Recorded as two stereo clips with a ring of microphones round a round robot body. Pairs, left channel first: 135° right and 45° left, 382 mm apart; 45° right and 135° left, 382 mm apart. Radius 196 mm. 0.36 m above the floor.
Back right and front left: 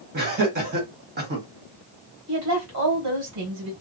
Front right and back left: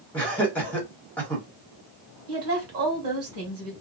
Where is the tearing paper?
No tearing paper in this recording.